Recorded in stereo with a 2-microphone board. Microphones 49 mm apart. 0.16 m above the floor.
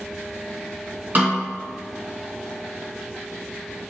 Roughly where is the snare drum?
Right.